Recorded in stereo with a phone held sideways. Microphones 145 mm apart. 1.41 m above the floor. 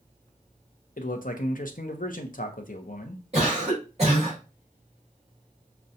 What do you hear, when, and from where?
1.0 s a man speaking: 70° left (ahead or behind), 0.7 m
3.3 s a cough: 45° right (ahead or behind), 2.5 m